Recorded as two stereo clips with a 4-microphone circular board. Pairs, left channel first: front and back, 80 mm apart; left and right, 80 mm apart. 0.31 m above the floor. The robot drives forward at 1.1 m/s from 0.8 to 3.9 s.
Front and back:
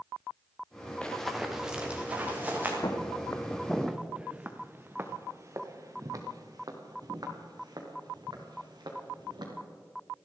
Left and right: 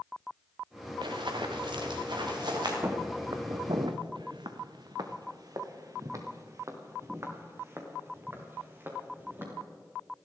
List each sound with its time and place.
1.0 s running footsteps: 80° right, 1.8 m; by 2.7 s 115° right, 4.5 m
2.8 s footsteps: 35° right, 2 m; by 9.5 s 155° right, 4.5 m